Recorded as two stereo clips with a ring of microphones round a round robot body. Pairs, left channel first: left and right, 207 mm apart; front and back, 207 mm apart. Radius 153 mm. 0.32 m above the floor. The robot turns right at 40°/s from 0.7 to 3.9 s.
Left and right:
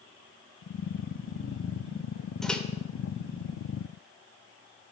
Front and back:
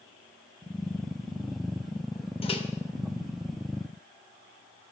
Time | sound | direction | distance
2.4 | a microwave | 5° left | 0.9 m